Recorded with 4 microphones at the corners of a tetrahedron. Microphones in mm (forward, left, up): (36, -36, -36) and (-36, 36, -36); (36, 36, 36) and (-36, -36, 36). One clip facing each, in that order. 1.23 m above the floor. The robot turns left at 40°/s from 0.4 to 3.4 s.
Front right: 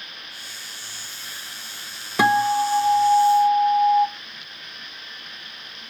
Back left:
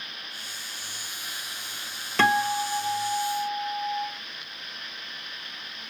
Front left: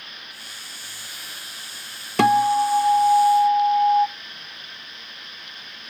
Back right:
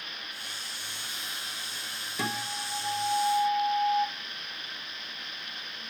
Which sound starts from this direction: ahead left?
A guitar, at 2.2 s.